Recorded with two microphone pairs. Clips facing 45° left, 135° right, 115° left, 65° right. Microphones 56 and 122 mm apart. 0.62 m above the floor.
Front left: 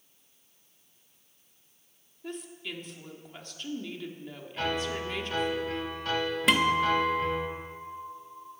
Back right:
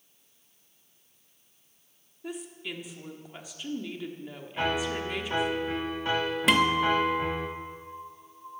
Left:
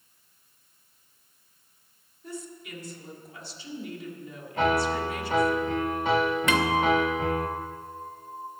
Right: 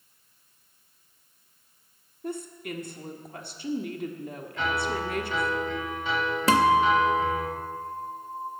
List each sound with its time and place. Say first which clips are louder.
2.2 s a woman speaking: back right 1 dB, right 5 dB; 55° right, 1.3 m
4.6 s a piano: back right 2 dB, left 5 dB; 155° left, 1.0 m
6.5 s a guitar: back right 1 dB, right 5 dB; 45° right, 0.9 m